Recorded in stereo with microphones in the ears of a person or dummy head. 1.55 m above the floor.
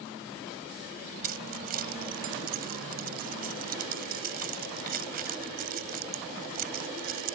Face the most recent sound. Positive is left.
turn(degrees=-40)  # may be behind; listen again after turning